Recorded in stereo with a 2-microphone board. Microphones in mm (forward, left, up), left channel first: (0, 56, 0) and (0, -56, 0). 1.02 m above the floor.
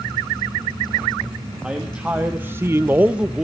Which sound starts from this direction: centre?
A man speaking, at 1.6 s.